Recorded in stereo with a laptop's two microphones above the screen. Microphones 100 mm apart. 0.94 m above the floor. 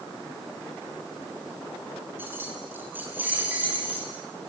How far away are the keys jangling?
About 8 m.